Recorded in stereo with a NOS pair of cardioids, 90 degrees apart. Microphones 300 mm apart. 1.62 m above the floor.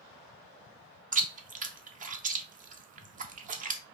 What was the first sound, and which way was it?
Chewing, 25° right.